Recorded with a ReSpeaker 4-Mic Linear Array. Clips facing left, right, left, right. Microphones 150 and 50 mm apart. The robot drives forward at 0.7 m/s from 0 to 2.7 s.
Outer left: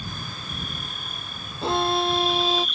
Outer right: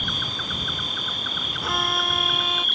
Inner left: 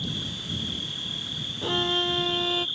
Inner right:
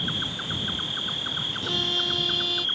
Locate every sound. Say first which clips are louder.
0.0 s an insect: outer right 3 dB, inner right 3 dB; 75° right (ahead or behind); by 2.8 s 55° right (ahead or behind)
1.6 s a violin: outer left 6 dB, inner left 4 dB; 25° left (ahead or behind); by 2.7 s 30° left (ahead or behind)